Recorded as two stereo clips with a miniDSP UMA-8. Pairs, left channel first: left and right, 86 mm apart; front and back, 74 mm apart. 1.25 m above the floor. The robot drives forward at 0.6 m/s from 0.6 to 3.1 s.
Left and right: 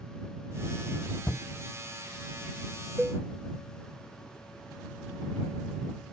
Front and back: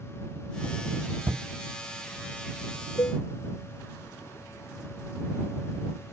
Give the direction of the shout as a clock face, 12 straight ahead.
7 o'clock.